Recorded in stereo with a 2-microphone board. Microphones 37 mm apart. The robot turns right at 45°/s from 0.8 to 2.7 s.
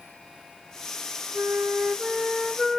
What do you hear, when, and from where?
1.3 s a flute: 60° right, 0.7 m; by 2.8 s straight ahead, 0.7 m